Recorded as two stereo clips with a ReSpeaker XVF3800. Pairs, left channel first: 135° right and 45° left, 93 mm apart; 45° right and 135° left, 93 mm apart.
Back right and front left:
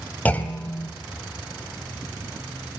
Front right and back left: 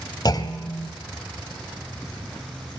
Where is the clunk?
65° right, 2 m.